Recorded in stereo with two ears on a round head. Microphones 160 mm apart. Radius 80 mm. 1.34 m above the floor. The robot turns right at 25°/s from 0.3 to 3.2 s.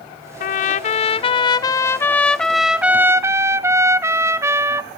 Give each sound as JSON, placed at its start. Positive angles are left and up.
{"t": 0.4, "sound": "a trumpet", "azimuth_deg": 125, "distance_m": 0.6}